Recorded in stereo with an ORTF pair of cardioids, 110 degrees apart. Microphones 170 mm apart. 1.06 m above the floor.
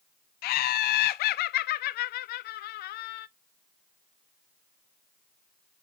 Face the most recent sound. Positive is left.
turn(degrees=70)